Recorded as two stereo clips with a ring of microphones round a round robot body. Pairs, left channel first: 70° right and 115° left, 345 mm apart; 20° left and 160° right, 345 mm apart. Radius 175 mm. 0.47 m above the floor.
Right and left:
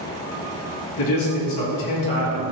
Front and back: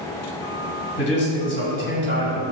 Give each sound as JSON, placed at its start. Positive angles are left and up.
{"t": 1.0, "sound": "a man speaking", "azimuth_deg": -35, "distance_m": 3.5}